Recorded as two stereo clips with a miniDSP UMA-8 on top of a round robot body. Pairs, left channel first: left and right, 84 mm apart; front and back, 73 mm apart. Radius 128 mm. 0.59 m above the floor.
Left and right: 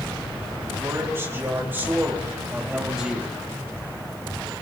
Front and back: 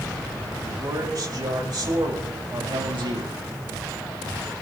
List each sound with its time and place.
0.7 s a man speaking: 150° right, 4.5 m; by 3.4 s 175° right, 3 m